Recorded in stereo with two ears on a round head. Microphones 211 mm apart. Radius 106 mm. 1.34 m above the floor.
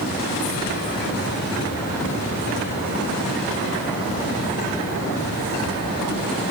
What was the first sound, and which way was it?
Only background noise.